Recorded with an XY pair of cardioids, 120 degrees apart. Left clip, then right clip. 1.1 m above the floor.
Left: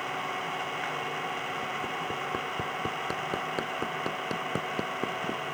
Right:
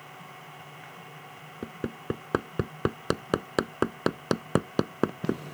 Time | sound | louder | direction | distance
0.0 | an engine running | left 13 dB | 65° left | ?
1.6 | hammering | left 4 dB | 50° right | ?